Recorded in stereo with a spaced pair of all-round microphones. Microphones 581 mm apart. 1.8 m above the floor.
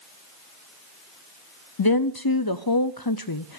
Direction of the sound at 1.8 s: 40° left (ahead or behind).